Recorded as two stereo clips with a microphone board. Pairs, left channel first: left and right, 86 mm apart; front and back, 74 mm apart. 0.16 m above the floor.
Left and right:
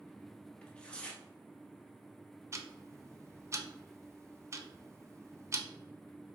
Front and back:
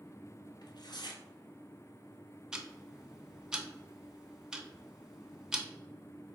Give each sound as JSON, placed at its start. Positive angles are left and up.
{"t": 0.6, "sound": "tearing paper", "azimuth_deg": 15, "distance_m": 0.8}
{"t": 2.5, "sound": "ticking", "azimuth_deg": -105, "distance_m": 0.6}